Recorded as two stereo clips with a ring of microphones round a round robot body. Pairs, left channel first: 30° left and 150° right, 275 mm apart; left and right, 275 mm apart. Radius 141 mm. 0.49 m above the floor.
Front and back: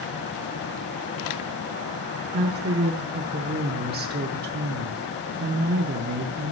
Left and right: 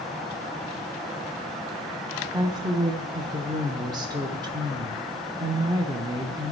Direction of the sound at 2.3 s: 155° right.